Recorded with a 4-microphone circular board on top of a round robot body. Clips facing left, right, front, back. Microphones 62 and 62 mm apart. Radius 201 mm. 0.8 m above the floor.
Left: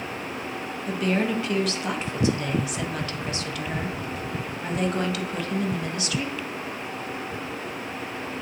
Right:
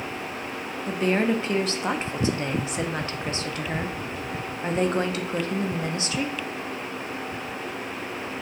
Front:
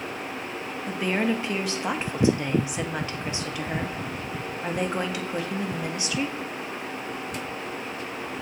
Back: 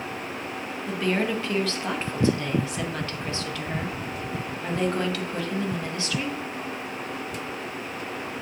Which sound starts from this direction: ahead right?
A woman speaking, at 0.9 s.